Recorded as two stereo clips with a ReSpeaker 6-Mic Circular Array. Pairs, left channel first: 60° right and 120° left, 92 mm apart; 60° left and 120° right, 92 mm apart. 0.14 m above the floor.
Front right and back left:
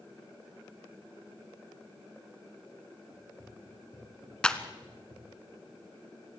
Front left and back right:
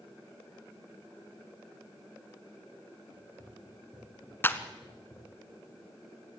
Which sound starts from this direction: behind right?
Running footsteps, at 3.1 s.